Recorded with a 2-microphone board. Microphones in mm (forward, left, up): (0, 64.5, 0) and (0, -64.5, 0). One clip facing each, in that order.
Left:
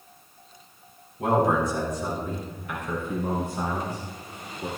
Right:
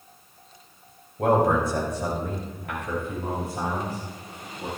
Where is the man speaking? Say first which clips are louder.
Right 2 dB; 60° right (ahead or behind), 3.5 m; by 4.7 s 65° right (ahead or behind), 7.5 m.